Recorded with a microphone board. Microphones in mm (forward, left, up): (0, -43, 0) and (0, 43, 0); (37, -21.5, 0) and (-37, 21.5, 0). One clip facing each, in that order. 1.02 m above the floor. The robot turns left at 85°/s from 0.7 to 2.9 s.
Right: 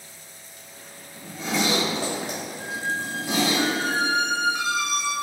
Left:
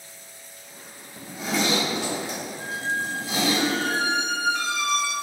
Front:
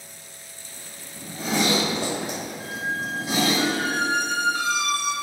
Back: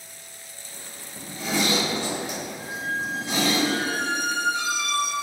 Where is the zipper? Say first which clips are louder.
Even, front 2 dB; 30° left, 2.5 m; by 3.6 s 115° right, 2.5 m.